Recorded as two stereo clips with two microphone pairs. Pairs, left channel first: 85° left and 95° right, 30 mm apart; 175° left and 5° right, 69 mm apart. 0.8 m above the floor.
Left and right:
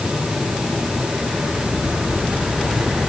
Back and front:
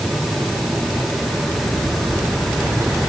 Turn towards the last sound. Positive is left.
No sound to turn to.